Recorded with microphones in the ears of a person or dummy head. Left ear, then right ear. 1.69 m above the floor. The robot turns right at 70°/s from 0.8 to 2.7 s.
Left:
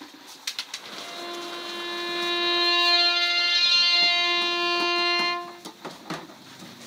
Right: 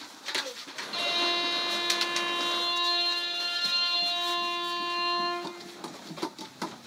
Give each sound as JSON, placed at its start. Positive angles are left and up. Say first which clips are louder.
{"t": 0.9, "sound": "a violin", "louder": "right 10 dB", "azimuth_deg": -75, "distance_m": 0.6}